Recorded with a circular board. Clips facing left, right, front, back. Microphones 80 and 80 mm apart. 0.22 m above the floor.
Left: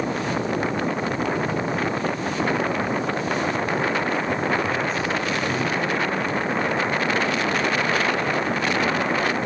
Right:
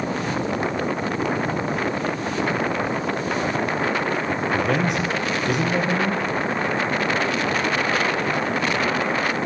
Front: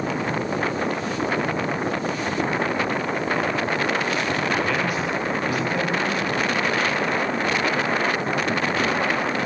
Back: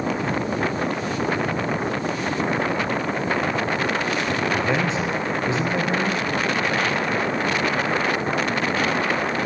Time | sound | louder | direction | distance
4.5 | a man speaking | right 2 dB, back 1 dB | 110° right | 6 m